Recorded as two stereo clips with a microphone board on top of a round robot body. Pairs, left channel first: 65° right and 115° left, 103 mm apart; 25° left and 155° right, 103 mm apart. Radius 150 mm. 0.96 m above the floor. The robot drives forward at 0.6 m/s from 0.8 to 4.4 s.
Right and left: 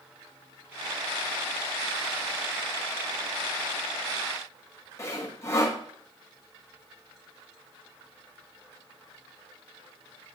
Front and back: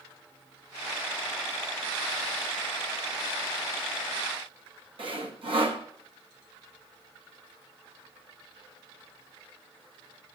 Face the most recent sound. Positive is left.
turn(degrees=-130)